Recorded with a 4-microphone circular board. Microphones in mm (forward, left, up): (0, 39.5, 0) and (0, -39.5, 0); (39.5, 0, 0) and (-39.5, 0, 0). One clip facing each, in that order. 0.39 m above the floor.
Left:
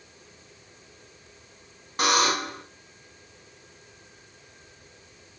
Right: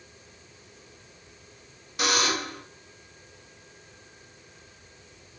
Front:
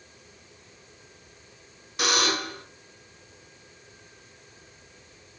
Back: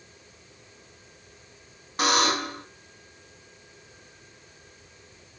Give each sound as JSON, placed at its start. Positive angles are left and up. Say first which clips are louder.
{"t": 2.0, "sound": "a buzzer", "louder": "left 3 dB, back 3 dB", "azimuth_deg": 130, "distance_m": 1.7}